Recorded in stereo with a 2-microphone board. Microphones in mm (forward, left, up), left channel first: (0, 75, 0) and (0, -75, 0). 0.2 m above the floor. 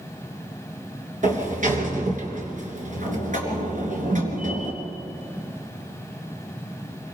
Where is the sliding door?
60° right (ahead or behind), 3.5 m.